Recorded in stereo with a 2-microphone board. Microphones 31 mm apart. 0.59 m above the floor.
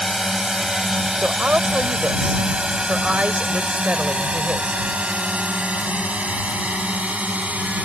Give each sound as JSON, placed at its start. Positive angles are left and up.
{"t": 0.0, "sound": "a drone", "side_deg": -10}
{"t": 1.2, "sound": "a woman speaking", "side_deg": -50}